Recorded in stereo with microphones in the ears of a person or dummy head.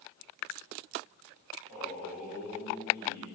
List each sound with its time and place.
1.7 s a man speaking: 20° left (ahead or behind), 4 m